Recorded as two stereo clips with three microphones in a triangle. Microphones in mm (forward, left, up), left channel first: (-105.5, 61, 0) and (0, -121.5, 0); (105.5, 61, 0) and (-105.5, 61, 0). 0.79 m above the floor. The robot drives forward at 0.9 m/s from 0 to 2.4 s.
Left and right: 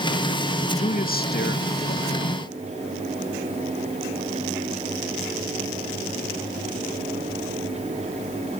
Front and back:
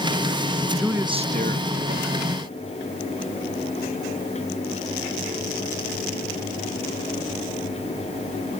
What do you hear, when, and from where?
0.8 s a man speaking: 90° left, 0.7 m; by 2.4 s 165° left, 1.6 m